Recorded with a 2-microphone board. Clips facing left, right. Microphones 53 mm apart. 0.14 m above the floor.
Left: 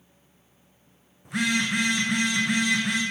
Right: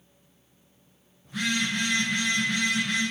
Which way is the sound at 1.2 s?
75° left (ahead or behind).